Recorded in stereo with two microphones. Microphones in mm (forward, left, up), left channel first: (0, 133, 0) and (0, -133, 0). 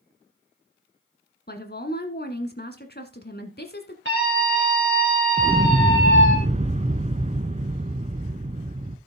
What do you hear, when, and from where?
1.5 s a woman speaking: 40° left (ahead or behind), 1.6 m
4.0 s a scream: 50° right (ahead or behind), 2 m
5.4 s an explosion: 30° right (ahead or behind), 0.7 m